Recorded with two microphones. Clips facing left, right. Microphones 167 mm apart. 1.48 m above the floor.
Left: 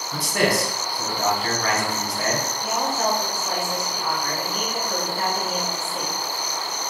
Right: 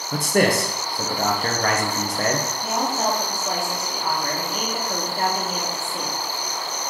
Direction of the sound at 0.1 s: 45° right (ahead or behind).